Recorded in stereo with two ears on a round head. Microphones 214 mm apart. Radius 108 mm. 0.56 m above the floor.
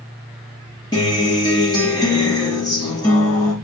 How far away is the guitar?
About 4.5 m.